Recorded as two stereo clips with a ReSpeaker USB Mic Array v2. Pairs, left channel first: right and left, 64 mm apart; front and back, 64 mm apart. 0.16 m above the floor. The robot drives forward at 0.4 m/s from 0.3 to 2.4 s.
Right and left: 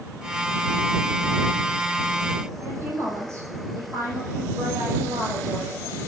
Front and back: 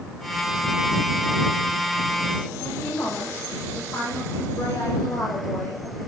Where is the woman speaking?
50° left, 6.5 m.